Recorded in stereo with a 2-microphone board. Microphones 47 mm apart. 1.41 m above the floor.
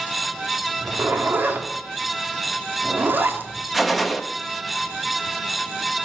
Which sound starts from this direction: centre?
A gunshot, at 3.7 s.